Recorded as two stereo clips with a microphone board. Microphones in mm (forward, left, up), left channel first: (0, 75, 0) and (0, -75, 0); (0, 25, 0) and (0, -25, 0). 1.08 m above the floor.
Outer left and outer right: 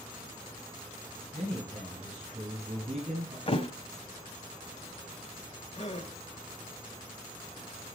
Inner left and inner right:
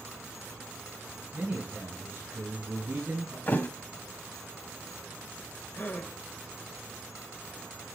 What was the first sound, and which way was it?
A man speaking, 30° right (ahead or behind).